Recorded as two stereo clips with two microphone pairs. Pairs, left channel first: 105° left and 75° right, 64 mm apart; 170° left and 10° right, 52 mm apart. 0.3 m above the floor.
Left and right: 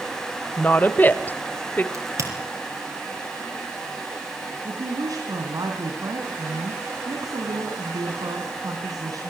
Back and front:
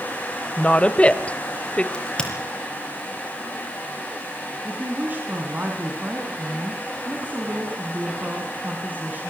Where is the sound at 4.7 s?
65° right, 3 m.